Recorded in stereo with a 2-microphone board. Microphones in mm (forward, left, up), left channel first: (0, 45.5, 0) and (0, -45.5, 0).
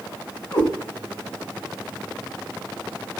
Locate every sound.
0.5 s a cat meowing: 50° left (ahead or behind), 1.3 m